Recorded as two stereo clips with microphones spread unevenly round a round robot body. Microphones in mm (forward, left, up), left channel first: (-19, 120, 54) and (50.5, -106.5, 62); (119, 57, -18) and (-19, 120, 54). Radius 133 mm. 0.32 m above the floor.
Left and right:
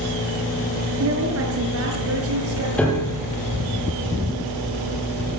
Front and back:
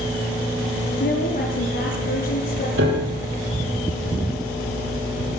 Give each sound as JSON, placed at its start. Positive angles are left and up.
{"t": 1.0, "sound": "a woman speaking", "azimuth_deg": -40, "distance_m": 6.0}
{"t": 2.8, "sound": "a piano", "azimuth_deg": -170, "distance_m": 7.0}